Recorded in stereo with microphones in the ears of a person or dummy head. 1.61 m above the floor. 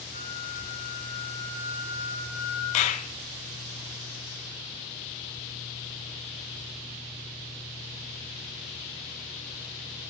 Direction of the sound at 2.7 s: 40° left (ahead or behind).